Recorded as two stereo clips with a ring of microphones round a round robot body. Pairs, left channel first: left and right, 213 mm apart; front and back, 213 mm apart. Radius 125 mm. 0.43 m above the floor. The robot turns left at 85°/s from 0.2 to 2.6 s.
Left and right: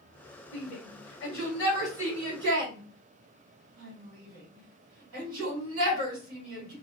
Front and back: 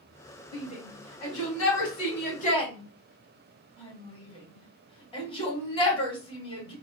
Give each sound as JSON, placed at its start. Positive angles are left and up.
{"t": 0.5, "sound": "a shout", "azimuth_deg": 110, "distance_m": 2.5}